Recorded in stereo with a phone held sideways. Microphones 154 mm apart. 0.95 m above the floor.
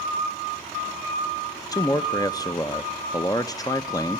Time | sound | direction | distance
1.7 | a man speaking | 25° left (ahead or behind) | 0.7 m